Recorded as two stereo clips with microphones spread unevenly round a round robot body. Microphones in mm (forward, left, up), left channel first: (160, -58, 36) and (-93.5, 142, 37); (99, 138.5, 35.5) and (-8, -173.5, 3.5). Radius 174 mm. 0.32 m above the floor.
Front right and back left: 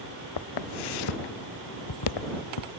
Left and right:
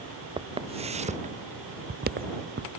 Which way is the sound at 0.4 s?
35° right.